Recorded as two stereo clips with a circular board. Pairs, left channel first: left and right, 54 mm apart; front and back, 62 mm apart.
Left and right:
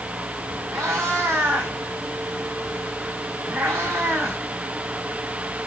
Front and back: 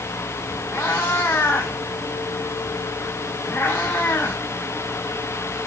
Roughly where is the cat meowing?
Ahead right.